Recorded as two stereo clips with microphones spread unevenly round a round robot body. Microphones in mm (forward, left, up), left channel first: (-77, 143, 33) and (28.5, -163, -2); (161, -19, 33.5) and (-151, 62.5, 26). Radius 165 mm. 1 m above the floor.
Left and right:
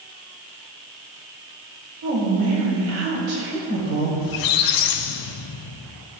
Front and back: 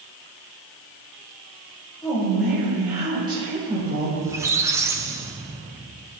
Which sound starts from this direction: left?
A squeak, at 4.2 s.